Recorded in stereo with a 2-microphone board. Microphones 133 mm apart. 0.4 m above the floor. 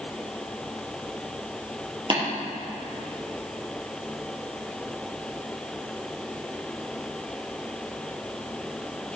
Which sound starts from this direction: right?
Tapping, at 2.1 s.